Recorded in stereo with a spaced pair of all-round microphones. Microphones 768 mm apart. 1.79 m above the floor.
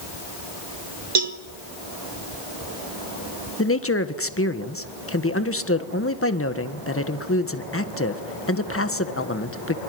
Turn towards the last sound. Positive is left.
turn(degrees=15)  # may be behind; listen again after turning